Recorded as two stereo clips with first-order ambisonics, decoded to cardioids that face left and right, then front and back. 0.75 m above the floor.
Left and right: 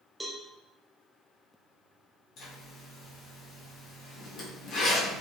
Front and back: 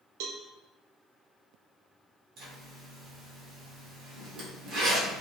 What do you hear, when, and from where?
0.2 s a cowbell: straight behind, 0.7 m
2.4 s a zipper: 135° left, 1.3 m